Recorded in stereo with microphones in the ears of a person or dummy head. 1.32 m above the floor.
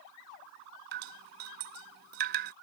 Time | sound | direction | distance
0.9 | dripping | 60° right (ahead or behind) | ?